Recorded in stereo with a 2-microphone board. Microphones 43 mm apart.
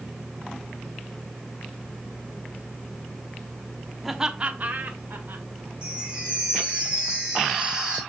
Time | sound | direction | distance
4.0 | laughter | 5° right (ahead or behind) | 1.0 m
5.8 | a chime | 25° right (ahead or behind) | 5.5 m